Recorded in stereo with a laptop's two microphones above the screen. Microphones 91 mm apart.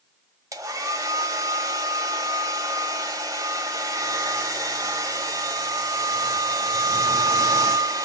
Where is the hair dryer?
40° right (ahead or behind), 1.3 m.